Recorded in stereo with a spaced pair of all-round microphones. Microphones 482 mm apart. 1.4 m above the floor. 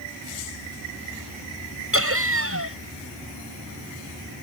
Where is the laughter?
30° right (ahead or behind).